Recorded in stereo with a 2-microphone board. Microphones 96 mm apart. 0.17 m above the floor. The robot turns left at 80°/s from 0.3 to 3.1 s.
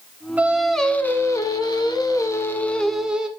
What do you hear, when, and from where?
0.4 s singing: 155° right, 0.8 m; by 3.3 s 15° right, 0.8 m